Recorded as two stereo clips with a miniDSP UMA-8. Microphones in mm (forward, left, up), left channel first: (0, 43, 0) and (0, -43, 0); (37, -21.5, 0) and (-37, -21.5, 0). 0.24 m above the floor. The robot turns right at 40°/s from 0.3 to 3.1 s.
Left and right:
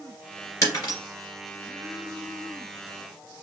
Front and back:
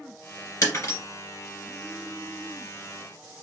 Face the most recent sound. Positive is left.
turn(degrees=135)